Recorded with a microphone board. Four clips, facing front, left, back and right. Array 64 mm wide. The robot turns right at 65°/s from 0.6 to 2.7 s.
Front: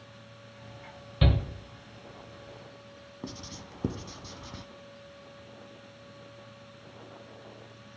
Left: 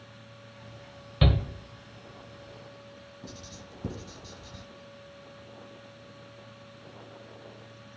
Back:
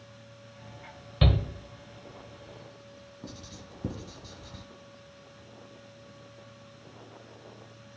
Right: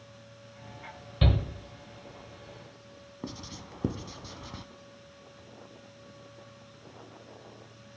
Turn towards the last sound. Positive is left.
turn(degrees=-55)